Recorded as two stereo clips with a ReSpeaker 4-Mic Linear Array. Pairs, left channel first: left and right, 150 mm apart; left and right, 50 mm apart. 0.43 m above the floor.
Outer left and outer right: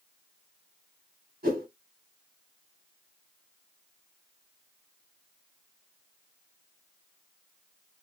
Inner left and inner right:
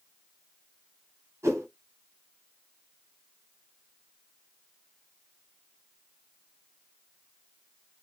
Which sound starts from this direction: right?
A whoosh, at 1.4 s.